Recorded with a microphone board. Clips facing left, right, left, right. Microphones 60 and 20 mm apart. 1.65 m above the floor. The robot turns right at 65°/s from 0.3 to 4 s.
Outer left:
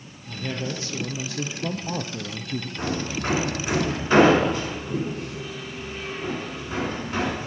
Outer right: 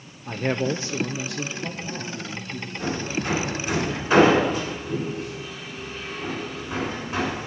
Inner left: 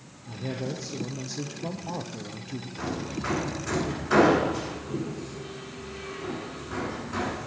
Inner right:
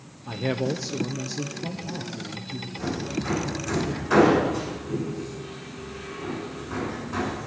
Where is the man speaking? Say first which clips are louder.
Outer right 6 dB, inner right 7 dB; 65° right, 0.5 m; by 2.7 s 90° left, 0.5 m.